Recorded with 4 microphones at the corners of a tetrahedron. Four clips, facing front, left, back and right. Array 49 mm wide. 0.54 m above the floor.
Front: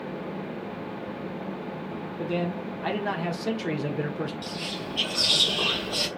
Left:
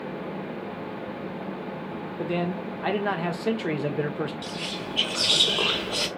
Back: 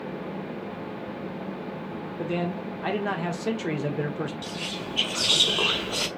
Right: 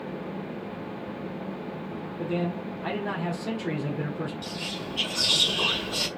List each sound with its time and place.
2.2 s a man speaking: 105° left, 1.1 m
4.4 s whispering: 125° left, 1.4 m